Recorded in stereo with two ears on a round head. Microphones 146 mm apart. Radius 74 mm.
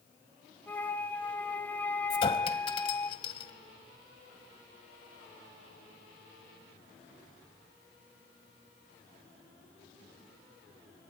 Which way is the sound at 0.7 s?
10° left (ahead or behind).